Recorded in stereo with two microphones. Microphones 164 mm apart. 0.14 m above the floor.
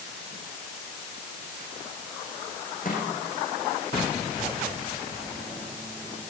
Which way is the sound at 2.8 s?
55° left (ahead or behind).